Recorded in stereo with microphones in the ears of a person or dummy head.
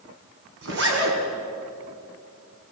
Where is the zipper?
70° right (ahead or behind), 4 m.